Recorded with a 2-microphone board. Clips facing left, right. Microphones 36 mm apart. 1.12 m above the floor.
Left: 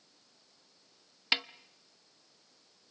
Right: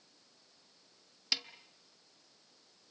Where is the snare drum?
40° left (ahead or behind), 0.7 m.